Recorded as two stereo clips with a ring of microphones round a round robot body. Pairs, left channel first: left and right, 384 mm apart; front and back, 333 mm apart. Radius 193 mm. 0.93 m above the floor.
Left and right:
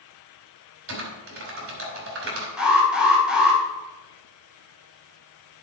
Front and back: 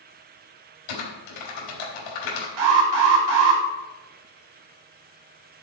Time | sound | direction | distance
0.9 | typing on a keyboard | 30° right | 3.5 m
2.6 | an alarm | straight behind | 2.5 m